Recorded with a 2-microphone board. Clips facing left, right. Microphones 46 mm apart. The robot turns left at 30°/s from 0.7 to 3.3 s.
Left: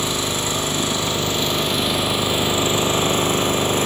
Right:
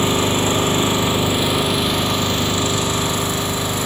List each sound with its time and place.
0.0 s an engine running: 145° right, 3 m; by 3.9 s 135° left, 3 m